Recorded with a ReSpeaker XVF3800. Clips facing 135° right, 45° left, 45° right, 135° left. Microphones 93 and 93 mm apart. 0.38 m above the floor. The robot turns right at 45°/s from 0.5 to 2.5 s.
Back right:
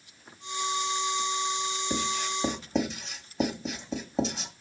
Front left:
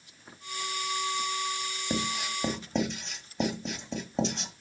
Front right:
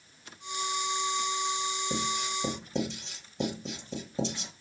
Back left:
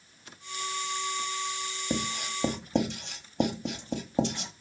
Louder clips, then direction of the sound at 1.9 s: Front left 1 dB, front right 1 dB; 110° left.